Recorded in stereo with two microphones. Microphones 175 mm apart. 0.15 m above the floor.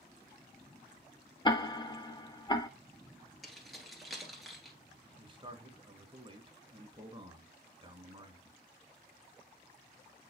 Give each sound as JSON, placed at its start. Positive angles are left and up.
{"t": 1.4, "sound": "ticking", "side_deg": 25, "distance_m": 0.5}
{"t": 3.4, "sound": "keys jangling", "side_deg": 0, "distance_m": 1.8}
{"t": 5.2, "sound": "a man speaking", "side_deg": -30, "distance_m": 1.5}